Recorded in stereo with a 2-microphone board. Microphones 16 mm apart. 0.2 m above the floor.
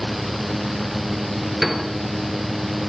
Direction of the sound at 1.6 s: 10° right (ahead or behind).